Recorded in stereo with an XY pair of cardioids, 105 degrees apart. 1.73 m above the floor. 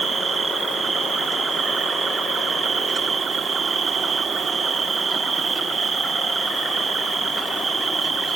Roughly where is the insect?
Ahead right.